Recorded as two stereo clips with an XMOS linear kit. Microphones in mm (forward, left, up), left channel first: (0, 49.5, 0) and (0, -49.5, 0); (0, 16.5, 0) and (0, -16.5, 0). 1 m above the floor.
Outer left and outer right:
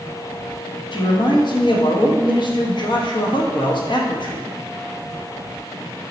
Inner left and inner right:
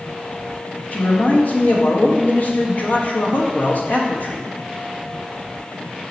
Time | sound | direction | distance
0.9 | a man speaking | 55° left (ahead or behind) | 1.1 m